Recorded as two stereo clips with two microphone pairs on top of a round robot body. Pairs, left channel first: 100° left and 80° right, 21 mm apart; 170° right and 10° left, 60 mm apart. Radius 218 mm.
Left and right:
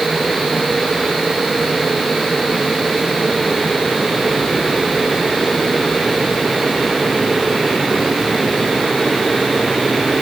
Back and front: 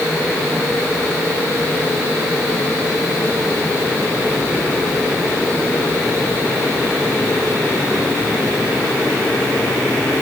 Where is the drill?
I don't hear a drill.